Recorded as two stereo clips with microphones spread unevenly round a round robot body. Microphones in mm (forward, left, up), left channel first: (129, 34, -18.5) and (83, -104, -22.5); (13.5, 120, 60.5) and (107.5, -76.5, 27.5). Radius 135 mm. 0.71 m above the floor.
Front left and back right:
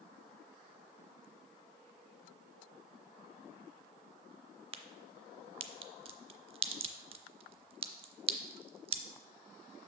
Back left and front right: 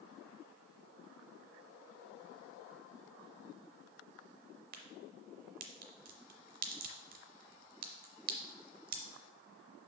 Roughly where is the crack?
Right.